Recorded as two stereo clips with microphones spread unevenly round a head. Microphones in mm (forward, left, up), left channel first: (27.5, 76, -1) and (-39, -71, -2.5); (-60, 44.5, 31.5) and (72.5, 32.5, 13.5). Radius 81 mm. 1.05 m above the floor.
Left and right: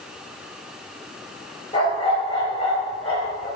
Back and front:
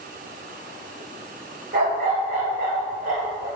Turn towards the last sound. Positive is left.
turn(degrees=15)